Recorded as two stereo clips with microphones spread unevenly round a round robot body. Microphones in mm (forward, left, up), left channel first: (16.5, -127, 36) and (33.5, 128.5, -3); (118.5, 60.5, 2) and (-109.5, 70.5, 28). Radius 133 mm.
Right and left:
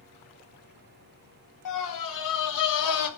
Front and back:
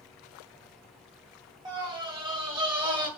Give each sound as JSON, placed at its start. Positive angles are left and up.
{"t": 1.6, "sound": "a scream", "azimuth_deg": -105, "distance_m": 3.0}